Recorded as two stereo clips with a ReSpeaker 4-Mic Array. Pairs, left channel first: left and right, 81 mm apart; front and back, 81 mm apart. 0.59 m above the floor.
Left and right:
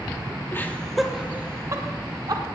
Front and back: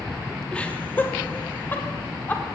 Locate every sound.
0.5 s laughter: 60° left, 0.8 m; by 2.4 s 65° right, 1.4 m